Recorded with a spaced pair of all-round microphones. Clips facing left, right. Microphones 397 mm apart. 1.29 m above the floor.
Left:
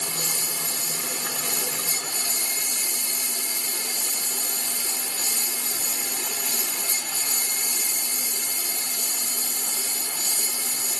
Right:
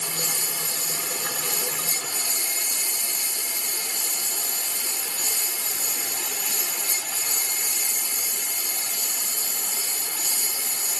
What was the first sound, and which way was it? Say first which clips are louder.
A lawn mower: even; 60° left (ahead or behind).